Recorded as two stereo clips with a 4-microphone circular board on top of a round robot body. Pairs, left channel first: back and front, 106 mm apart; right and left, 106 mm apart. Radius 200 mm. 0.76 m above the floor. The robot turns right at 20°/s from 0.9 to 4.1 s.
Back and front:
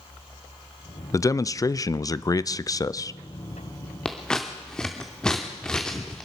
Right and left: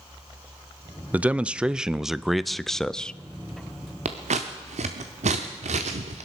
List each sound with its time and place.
1.1 s a man speaking: 155° left, 0.6 m; by 3.1 s 165° right, 0.6 m
4.0 s scissors: 95° left, 0.6 m